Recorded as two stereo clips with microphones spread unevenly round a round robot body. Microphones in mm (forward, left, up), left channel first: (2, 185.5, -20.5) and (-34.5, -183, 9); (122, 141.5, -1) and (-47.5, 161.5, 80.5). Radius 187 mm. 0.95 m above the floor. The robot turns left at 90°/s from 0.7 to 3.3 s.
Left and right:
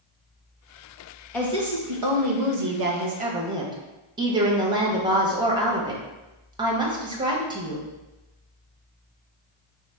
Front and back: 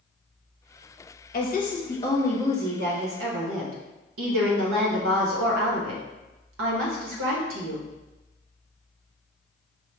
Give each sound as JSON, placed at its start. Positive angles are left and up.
{"t": 1.3, "sound": "a woman speaking", "azimuth_deg": 0, "distance_m": 0.8}